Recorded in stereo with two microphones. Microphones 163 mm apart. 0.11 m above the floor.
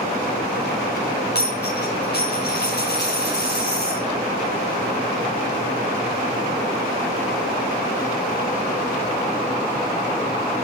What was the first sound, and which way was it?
A dropped coin, 85° left.